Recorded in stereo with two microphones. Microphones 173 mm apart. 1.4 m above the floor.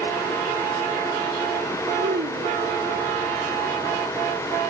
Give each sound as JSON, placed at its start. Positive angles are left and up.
{"t": 2.0, "sound": "a child speaking", "side_deg": -90}